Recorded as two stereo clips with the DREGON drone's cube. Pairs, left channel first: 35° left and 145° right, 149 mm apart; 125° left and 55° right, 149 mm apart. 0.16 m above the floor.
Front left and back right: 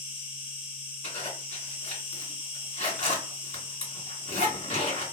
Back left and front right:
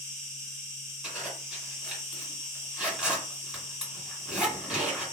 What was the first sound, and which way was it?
An insect, 5° left.